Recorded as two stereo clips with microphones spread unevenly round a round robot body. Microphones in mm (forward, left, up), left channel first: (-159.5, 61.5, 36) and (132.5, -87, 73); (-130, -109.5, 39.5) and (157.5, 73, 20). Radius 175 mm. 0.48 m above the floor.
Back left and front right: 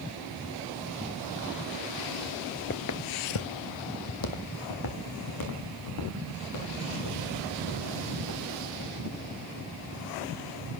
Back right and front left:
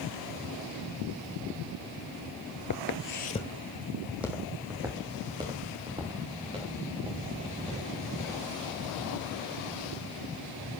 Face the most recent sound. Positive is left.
turn(degrees=105)